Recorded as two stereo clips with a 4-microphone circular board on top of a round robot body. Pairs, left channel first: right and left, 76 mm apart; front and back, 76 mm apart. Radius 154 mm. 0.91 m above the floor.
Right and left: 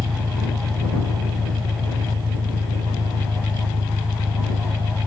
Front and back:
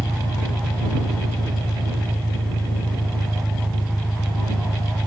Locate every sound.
0.0 s an engine running: 80° left